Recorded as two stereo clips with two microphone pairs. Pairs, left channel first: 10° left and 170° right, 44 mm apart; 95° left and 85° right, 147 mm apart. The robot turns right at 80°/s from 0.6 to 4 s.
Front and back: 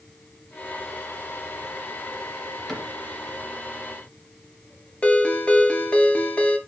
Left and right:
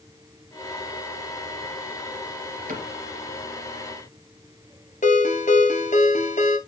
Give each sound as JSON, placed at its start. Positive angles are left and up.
{"t": 2.7, "sound": "a cupboard door", "azimuth_deg": -75, "distance_m": 3.0}
{"t": 5.0, "sound": "a ringtone", "azimuth_deg": 70, "distance_m": 1.7}